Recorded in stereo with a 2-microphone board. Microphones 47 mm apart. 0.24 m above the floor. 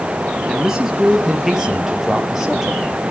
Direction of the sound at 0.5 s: 10° right (ahead or behind).